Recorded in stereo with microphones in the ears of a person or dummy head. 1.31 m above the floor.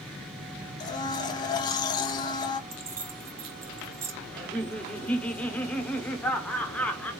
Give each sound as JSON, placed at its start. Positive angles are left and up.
{"t": 0.8, "sound": "a blender", "side_deg": 25, "distance_m": 0.6}
{"t": 2.7, "sound": "keys jangling", "side_deg": -20, "distance_m": 0.7}
{"t": 4.3, "sound": "laughter", "side_deg": 15, "distance_m": 0.7}